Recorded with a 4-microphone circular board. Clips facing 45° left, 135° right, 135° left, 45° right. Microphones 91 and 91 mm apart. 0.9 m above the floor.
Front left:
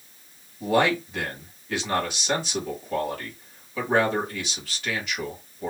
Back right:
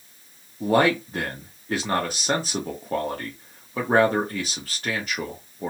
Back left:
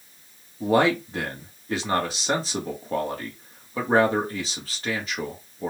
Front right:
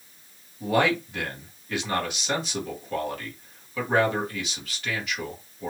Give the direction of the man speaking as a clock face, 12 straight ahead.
6 o'clock.